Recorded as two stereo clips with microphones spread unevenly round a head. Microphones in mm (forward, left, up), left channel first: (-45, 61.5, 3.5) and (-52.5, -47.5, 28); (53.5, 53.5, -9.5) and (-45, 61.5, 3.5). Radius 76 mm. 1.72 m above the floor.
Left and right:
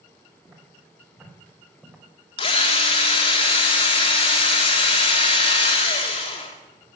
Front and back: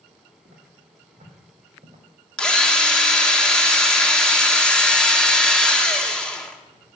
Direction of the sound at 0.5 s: 150° right.